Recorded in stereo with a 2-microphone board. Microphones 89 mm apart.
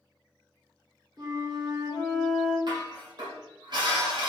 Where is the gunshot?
No gunshot in this recording.